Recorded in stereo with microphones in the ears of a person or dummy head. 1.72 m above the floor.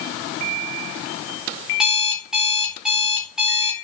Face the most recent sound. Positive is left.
turn(degrees=-5)  # may be behind; listen again after turning